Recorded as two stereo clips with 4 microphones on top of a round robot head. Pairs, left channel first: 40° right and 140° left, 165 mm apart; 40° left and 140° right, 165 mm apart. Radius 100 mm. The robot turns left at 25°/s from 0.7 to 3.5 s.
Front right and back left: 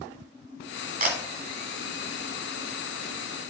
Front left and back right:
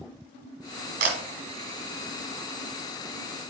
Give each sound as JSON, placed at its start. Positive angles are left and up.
{"t": 1.0, "sound": "a camera shutter", "azimuth_deg": 180, "distance_m": 1.6}